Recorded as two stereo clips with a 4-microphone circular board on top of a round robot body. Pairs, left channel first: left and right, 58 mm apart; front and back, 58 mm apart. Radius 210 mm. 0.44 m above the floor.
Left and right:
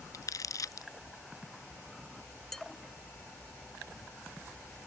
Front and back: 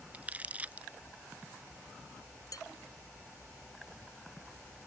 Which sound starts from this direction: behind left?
Crumpling, at 0.1 s.